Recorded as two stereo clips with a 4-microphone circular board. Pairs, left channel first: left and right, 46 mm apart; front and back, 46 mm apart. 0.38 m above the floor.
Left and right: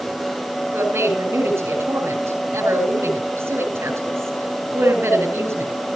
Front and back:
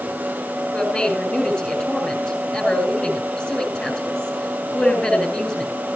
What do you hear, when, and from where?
0.7 s a woman speaking: 60° right, 5.5 m